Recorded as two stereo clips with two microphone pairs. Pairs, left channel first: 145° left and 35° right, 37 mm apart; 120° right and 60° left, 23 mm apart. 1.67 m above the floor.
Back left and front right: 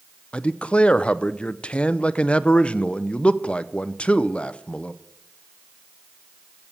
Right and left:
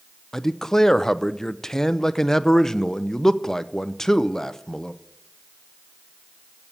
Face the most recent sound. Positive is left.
turn(degrees=180)